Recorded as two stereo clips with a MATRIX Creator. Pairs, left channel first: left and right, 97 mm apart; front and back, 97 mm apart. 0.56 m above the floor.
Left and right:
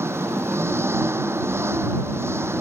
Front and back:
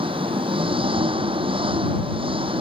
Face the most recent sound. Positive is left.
turn(degrees=-155)